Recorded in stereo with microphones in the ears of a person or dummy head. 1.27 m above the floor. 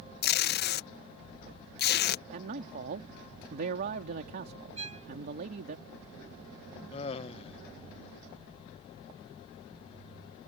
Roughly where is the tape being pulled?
Left.